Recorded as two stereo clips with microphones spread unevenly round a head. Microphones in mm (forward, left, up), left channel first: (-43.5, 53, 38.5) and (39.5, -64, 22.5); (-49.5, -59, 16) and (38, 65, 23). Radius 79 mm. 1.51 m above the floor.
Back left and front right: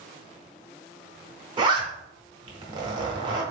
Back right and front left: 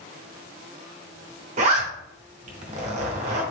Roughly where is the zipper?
Ahead.